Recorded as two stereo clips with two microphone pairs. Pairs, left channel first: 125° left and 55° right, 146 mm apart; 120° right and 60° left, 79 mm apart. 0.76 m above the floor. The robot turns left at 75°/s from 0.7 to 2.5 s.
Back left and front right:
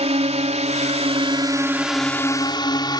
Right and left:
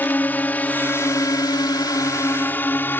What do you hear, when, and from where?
0.0 s a drone: 60° right; by 3.0 s straight behind